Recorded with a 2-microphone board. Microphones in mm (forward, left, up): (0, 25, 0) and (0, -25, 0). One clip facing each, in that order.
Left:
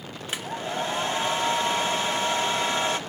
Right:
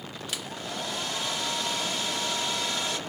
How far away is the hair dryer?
About 1.2 m.